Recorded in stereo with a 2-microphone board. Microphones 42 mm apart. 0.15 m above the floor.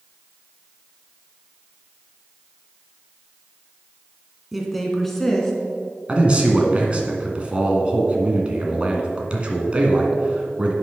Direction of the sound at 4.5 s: Centre (ahead or behind).